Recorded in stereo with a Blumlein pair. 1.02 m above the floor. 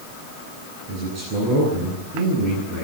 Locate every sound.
0.9 s a man speaking: 35° right, 10 m